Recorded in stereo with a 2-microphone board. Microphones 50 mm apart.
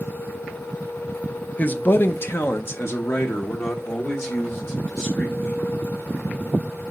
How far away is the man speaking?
About 0.7 m.